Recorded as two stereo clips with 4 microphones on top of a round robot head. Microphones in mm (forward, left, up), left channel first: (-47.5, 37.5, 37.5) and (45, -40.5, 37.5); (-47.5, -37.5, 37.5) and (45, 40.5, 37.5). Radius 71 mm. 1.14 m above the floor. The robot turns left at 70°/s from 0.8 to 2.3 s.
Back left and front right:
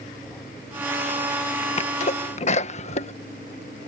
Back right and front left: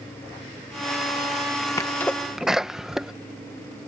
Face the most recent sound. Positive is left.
turn(degrees=125)